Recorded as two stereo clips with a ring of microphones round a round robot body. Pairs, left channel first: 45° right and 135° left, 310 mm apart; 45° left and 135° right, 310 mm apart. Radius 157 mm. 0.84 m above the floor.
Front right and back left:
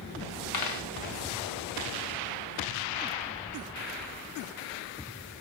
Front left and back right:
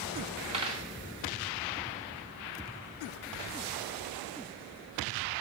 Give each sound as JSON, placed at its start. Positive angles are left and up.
{"t": 0.5, "sound": "a dropped coin", "azimuth_deg": -65, "distance_m": 1.1}